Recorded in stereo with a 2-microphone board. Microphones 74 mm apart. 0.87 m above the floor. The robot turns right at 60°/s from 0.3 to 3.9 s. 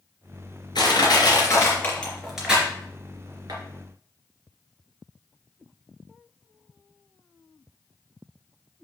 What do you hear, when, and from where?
0.8 s crushing: 80° left, 3 m; by 3.6 s 75° right (ahead or behind), 3 m